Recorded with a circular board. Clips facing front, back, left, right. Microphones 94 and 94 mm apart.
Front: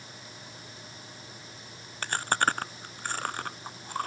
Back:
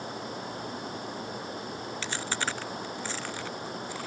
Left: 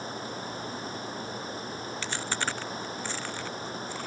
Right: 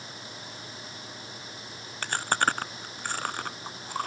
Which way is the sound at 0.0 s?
145° left.